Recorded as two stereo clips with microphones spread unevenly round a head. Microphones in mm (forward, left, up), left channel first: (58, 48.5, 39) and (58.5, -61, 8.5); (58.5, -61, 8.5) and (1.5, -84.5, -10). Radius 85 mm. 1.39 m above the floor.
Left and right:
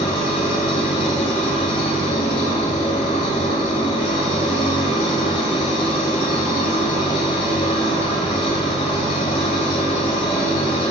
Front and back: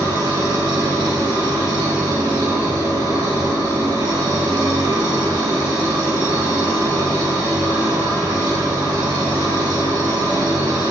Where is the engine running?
145° left, 4.5 m.